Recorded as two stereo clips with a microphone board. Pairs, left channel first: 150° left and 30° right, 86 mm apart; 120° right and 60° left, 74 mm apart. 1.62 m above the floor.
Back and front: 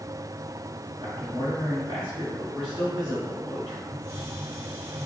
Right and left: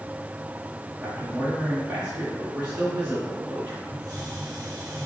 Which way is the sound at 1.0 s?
Straight ahead.